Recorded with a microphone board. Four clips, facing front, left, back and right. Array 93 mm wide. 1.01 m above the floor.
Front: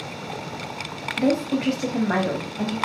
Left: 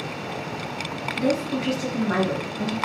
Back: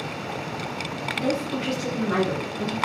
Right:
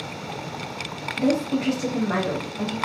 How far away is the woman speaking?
About 2 m.